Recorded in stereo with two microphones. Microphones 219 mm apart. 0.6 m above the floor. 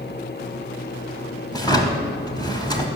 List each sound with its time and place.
1.5 s a drawer: 20° left (ahead or behind), 1.0 m